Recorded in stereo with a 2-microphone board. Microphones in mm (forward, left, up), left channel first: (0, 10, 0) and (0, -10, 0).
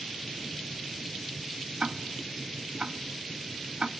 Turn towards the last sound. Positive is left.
turn(degrees=-45)  # may be behind; listen again after turning